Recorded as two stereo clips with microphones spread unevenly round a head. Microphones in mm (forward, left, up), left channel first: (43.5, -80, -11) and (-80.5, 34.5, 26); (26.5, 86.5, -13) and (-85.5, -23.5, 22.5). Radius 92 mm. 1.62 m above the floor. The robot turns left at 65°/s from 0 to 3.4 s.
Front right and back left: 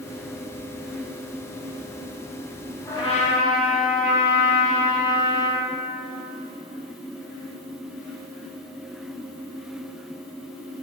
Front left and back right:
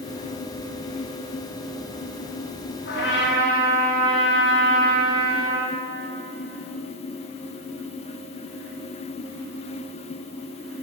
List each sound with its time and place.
2.9 s a trumpet: 35° left, 1.9 m; by 5.6 s straight ahead, 1.9 m